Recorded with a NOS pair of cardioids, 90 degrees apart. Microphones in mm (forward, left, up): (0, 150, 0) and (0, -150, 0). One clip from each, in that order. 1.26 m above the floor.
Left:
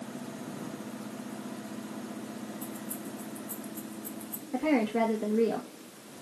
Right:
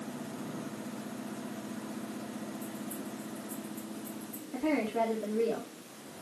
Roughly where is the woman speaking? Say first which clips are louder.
Left 3 dB; ahead left.